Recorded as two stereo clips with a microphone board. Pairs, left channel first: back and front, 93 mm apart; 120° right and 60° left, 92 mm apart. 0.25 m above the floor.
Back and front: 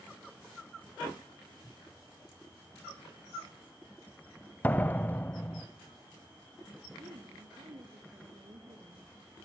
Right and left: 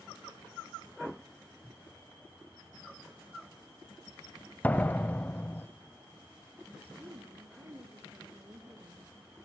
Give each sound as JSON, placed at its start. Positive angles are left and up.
{"t": 4.6, "sound": "a door slam", "azimuth_deg": -155, "distance_m": 0.8}
{"t": 7.0, "sound": "a woman speaking", "azimuth_deg": 5, "distance_m": 3.5}